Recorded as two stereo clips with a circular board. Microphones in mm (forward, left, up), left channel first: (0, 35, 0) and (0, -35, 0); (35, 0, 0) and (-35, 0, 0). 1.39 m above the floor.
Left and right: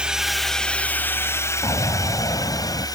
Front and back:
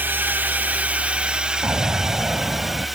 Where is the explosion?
115° left.